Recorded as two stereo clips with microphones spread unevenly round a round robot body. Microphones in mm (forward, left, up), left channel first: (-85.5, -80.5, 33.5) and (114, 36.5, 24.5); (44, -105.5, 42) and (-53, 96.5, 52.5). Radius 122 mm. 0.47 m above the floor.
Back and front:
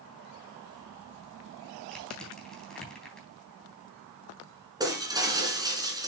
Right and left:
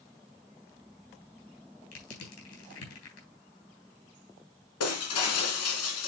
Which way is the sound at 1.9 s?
60° right.